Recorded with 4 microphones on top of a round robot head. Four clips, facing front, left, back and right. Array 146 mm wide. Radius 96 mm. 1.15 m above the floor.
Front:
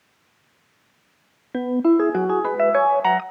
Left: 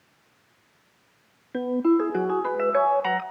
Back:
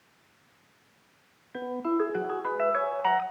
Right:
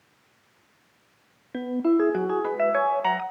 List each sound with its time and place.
1.5 s a ringtone: 10° right, 1.2 m